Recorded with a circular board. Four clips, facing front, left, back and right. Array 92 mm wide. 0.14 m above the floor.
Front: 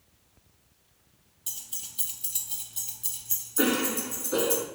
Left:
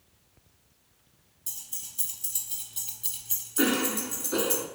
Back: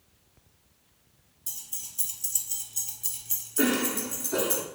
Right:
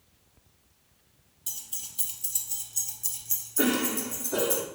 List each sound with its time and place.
1.5 s keys jangling: 35° right, 1.2 m; by 4.6 s 115° left, 1.8 m
3.6 s a cough: 60° left, 1.3 m